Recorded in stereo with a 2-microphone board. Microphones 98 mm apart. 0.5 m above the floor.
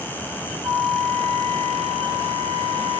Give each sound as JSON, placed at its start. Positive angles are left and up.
{"t": 0.6, "sound": "a flute", "side_deg": -55, "distance_m": 2.5}